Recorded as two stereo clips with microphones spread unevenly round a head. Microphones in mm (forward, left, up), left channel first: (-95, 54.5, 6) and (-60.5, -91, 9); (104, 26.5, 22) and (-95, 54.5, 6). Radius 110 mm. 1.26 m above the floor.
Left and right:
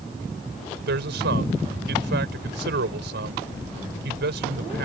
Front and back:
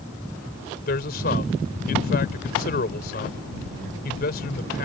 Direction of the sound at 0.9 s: 60° right.